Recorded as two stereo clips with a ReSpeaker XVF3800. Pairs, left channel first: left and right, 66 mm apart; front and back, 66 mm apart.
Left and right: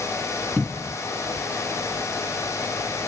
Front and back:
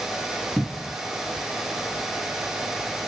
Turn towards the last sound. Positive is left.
turn(degrees=-5)